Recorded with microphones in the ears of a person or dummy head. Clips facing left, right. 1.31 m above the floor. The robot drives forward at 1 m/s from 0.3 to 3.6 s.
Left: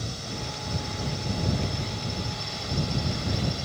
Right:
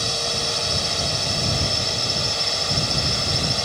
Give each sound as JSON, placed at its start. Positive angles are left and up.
{"t": 0.0, "sound": "a drone", "side_deg": -75}